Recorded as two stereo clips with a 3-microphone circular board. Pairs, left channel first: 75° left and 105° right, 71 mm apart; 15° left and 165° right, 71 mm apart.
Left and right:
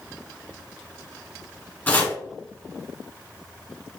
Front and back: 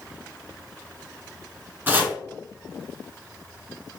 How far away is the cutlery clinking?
I don't hear cutlery clinking.